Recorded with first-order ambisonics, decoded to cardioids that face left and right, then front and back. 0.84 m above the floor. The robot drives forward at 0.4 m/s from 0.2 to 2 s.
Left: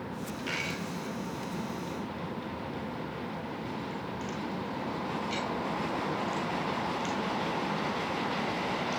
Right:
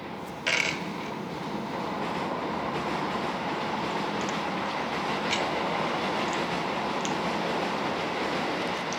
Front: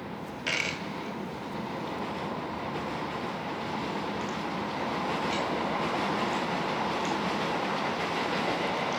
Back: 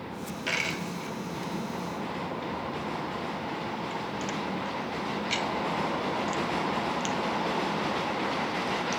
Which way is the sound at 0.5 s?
80° right.